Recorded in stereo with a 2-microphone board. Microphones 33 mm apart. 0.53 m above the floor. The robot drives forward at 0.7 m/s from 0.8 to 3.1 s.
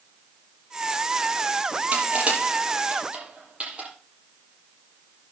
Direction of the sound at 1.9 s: 40° right (ahead or behind).